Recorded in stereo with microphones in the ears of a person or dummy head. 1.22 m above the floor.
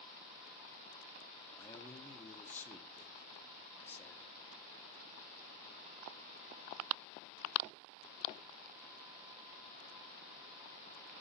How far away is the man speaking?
About 1.0 m.